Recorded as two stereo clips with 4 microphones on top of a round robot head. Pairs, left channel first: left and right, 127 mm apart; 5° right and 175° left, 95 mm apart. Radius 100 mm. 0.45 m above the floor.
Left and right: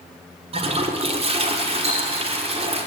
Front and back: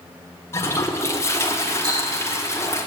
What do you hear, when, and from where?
0.5 s a toilet flushing: 65° right, 1.7 m
1.8 s ticking: 125° right, 6 m